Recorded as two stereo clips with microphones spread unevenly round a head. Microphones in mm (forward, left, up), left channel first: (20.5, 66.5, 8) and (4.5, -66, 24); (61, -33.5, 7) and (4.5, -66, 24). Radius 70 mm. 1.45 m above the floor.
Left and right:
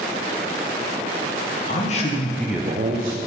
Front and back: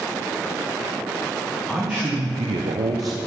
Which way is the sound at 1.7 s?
120° left.